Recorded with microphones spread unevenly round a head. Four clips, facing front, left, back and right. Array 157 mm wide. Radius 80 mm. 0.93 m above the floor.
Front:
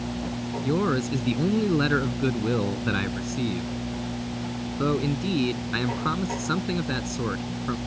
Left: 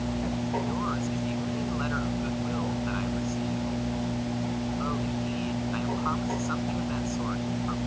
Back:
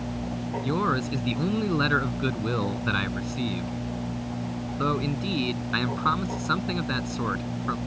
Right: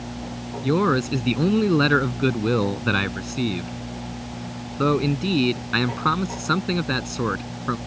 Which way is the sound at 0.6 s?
85° right.